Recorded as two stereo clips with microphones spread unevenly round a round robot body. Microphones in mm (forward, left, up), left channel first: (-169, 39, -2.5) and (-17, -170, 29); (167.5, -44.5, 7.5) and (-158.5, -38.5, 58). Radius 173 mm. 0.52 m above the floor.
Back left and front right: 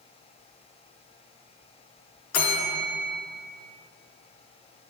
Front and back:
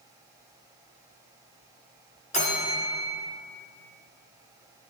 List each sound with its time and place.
2.3 s a bell: 75° left, 0.9 m